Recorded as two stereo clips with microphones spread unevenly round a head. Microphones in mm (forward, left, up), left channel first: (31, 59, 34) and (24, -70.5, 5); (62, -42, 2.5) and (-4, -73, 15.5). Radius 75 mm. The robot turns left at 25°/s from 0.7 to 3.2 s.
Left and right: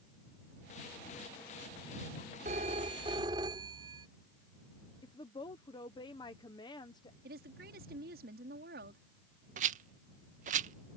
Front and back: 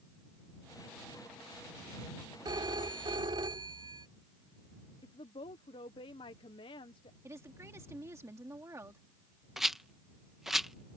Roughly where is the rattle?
Right.